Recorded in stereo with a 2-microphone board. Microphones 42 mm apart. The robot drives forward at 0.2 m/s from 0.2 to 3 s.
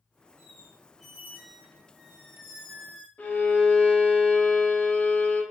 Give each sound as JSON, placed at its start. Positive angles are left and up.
{"t": 0.4, "sound": "a squeak", "side_deg": -10, "distance_m": 0.9}
{"t": 3.2, "sound": "a violin", "side_deg": 30, "distance_m": 1.1}